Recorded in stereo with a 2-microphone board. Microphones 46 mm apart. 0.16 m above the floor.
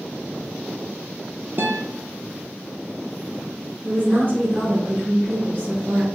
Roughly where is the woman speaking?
Right.